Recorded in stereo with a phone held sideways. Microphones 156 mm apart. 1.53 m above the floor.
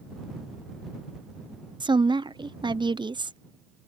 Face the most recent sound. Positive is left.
turn(degrees=-30)  # may be behind; listen again after turning